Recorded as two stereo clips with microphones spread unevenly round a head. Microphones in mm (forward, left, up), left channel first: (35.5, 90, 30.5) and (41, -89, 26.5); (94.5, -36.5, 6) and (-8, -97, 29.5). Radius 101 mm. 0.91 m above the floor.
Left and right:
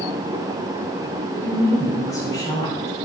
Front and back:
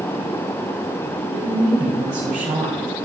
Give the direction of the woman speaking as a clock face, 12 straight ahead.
7 o'clock.